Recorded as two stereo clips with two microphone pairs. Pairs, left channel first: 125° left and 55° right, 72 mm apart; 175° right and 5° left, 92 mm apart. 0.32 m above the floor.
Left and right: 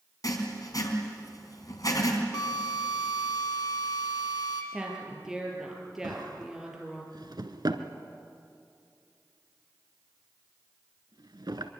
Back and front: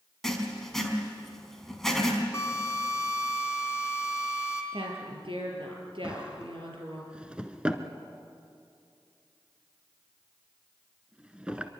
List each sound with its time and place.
0.2 s writing: 100° left, 3 m
2.3 s a drill: 130° left, 4 m
4.7 s a woman speaking: 25° left, 6.5 m
6.0 s a drawer: 75° right, 1.4 m